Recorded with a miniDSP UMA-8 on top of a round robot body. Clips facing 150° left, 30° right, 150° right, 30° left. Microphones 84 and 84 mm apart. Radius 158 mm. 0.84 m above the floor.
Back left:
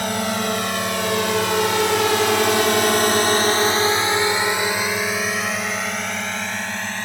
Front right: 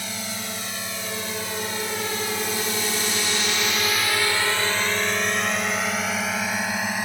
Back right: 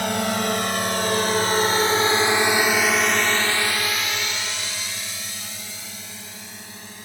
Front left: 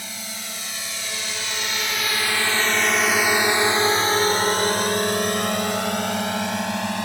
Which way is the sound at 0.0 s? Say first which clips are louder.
Back left 11 dB, back right 14 dB; 175° right.